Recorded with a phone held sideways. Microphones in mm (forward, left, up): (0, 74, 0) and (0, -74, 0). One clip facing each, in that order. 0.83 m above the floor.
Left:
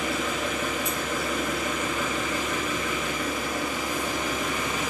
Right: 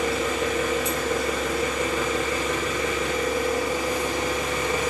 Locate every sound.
0.0 s an engine running: 80° right, 2.5 m